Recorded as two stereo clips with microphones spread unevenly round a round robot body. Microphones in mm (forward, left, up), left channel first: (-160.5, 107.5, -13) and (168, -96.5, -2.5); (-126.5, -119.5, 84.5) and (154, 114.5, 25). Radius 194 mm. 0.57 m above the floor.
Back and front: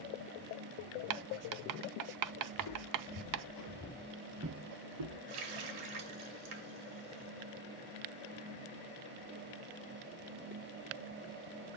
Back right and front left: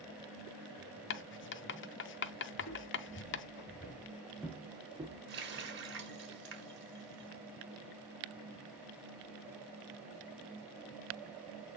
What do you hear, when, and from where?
1.1 s writing: 80° right, 0.5 m
2.5 s footsteps: 165° left, 1.4 m; by 5.2 s 40° right, 1.1 m
5.3 s a running tap: 20° right, 2.5 m